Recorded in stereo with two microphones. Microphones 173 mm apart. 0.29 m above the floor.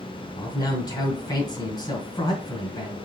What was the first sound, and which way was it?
A man speaking, 25° left (ahead or behind).